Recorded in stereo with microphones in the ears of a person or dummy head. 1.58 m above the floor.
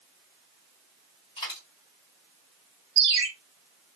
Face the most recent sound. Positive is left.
turn(degrees=-20)  # may be behind; listen again after turning